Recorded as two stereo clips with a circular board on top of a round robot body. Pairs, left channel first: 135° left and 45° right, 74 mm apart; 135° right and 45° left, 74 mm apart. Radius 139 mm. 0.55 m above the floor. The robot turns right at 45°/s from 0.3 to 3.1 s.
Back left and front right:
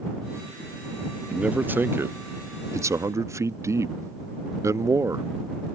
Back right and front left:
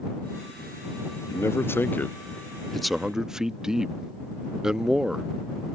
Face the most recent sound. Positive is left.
turn(degrees=-35)